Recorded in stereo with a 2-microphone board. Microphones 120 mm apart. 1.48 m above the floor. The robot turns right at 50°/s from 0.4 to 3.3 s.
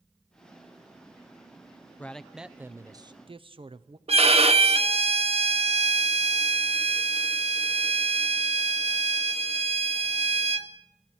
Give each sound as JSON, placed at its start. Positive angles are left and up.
{"t": 2.0, "sound": "a man speaking", "azimuth_deg": 165, "distance_m": 0.6}
{"t": 4.1, "sound": "a violin", "side_deg": -55, "distance_m": 0.7}